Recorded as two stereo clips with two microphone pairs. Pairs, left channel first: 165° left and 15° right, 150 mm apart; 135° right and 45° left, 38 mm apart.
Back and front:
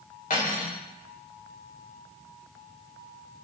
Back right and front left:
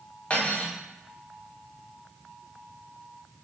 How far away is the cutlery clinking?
About 1.1 m.